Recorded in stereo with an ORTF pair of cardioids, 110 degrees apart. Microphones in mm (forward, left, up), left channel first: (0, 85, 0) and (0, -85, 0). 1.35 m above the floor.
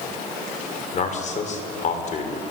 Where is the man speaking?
45° left, 5.5 m.